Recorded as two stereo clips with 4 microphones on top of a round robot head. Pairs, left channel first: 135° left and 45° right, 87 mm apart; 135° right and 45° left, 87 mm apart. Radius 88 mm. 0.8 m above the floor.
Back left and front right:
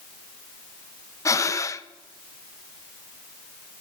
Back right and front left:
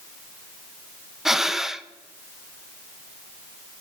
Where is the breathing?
130° left, 0.7 m.